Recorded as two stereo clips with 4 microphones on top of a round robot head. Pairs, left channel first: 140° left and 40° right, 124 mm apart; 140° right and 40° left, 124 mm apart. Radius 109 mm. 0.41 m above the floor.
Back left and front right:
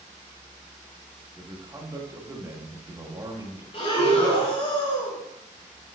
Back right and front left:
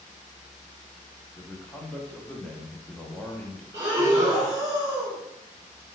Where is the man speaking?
70° right, 1.1 m.